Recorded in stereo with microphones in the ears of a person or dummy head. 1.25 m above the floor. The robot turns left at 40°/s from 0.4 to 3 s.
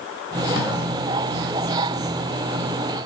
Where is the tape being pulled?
40° left (ahead or behind), 3.5 m; by 0.7 s 35° left (ahead or behind), 3.5 m.